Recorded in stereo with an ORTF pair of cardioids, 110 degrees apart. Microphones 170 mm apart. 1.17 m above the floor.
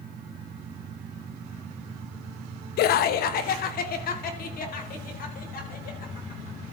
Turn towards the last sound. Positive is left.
turn(degrees=60)